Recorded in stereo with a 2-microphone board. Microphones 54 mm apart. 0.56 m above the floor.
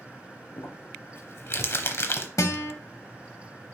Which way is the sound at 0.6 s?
55° left (ahead or behind).